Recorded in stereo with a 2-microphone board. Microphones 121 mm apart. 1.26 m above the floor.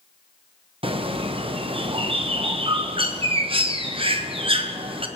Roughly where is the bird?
Right.